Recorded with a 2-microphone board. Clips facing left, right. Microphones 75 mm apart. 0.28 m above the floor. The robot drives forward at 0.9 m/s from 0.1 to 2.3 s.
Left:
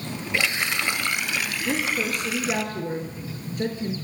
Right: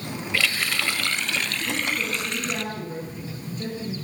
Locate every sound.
0.3 s a running tap: 20° left (ahead or behind), 0.6 m; by 2.6 s 5° left (ahead or behind), 1.6 m
1.6 s a woman speaking: 70° left (ahead or behind), 5 m; by 4.0 s 65° left (ahead or behind), 5 m